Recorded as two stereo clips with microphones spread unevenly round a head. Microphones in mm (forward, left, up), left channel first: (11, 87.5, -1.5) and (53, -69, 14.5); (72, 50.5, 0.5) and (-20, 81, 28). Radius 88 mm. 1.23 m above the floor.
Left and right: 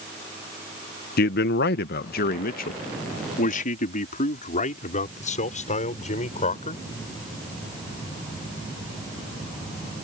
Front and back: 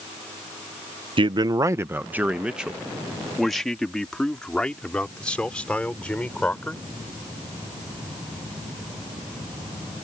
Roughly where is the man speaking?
Behind left.